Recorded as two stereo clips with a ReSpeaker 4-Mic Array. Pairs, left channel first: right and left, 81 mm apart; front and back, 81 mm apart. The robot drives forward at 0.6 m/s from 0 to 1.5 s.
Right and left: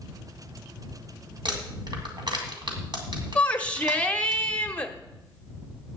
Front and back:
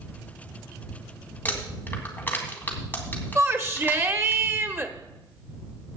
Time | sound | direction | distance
1.4 | crumpling | 65° left | 2.5 m
3.4 | a shout | 150° right | 1.0 m